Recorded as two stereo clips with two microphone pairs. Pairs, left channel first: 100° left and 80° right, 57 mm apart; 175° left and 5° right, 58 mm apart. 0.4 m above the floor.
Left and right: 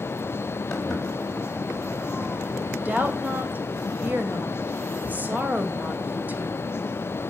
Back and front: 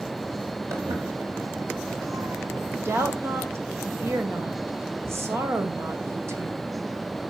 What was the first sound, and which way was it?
Footsteps, 20° left.